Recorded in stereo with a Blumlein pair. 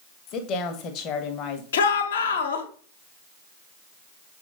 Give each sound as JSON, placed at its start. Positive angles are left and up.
{"t": 0.3, "sound": "a woman speaking", "azimuth_deg": 35, "distance_m": 1.4}
{"t": 1.7, "sound": "a shout", "azimuth_deg": 65, "distance_m": 1.4}